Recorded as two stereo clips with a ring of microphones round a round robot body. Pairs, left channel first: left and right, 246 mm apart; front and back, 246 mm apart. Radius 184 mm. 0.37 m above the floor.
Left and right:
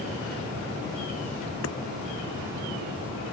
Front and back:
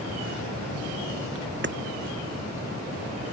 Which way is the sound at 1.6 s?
135° left.